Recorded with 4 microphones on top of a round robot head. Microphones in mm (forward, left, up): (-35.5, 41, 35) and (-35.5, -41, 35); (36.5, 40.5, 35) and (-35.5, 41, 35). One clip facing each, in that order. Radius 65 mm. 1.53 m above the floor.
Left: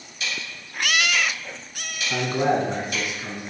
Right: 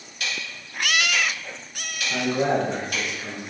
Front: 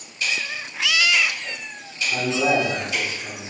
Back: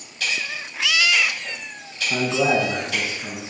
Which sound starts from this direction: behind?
A man speaking, at 2.1 s.